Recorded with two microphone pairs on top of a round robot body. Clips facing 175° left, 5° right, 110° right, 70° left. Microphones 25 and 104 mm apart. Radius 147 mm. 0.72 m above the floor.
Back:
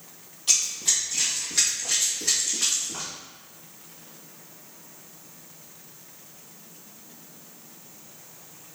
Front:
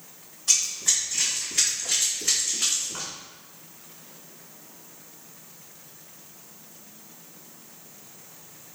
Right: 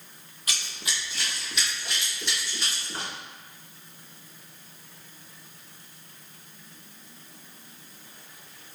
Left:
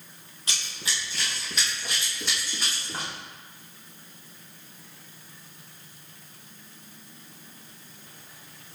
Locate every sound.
0.5 s running footsteps: 140° left, 1.1 m; by 3.1 s 125° left, 2.5 m